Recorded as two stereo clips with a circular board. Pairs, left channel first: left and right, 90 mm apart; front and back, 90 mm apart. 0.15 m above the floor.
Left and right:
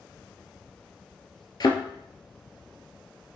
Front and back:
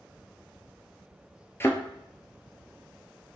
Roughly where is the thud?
Ahead left.